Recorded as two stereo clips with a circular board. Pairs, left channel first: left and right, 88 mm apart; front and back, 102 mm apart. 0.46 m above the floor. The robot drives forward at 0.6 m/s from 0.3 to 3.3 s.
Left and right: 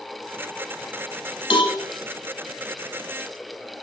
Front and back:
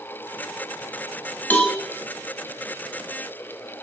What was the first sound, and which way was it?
A cowbell, 75° left.